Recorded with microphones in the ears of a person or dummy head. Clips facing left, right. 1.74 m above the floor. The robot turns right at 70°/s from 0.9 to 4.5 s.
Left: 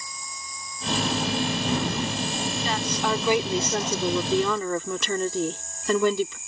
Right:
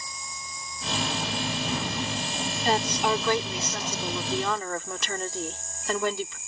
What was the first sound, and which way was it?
An insect, 20° right.